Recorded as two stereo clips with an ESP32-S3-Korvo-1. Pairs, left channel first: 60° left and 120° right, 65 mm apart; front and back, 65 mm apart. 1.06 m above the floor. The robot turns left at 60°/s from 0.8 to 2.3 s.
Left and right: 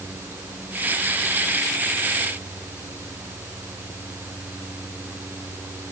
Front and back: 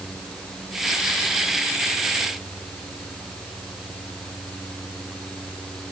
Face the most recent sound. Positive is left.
No sound to turn to.